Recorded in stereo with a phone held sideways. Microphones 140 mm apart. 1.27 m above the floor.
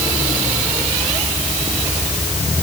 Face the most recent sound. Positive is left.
No sound to turn to.